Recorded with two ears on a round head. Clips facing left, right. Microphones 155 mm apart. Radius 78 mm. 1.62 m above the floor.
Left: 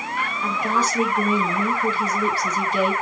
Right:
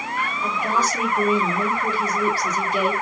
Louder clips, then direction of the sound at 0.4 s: Even; 10° right (ahead or behind).